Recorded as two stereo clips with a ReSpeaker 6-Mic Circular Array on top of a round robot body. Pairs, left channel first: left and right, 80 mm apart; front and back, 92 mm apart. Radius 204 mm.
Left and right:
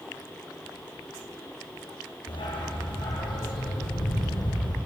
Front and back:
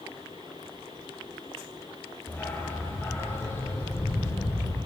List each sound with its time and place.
2.3 s a dog barking: 70° left, 4.5 m; by 4.8 s 60° left, 7.5 m